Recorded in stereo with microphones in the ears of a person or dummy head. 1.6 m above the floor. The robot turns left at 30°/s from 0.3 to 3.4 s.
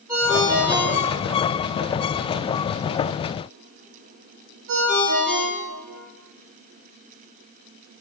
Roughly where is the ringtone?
Centre.